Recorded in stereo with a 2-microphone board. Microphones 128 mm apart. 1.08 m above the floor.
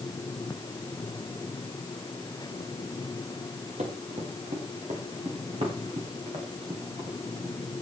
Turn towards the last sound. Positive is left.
turn(degrees=-45)  # may be behind; listen again after turning